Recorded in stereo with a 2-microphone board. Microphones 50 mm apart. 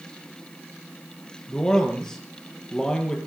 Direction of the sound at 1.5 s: 10° left (ahead or behind).